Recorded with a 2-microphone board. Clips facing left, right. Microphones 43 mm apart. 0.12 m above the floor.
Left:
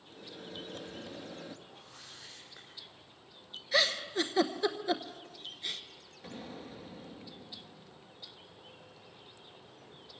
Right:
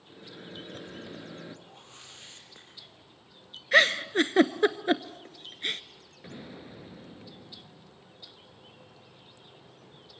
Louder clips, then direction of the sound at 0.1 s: Right 1 dB; 20° right (ahead or behind).